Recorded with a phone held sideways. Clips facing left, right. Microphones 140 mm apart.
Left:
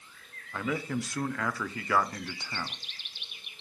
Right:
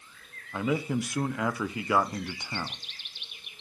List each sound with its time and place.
0.5 s a man speaking: 15° right (ahead or behind), 0.5 m